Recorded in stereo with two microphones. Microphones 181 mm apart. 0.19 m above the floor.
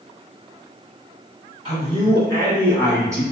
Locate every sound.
1.6 s a man speaking: 35° right (ahead or behind), 1.7 m; by 3.2 s 15° right (ahead or behind), 2.5 m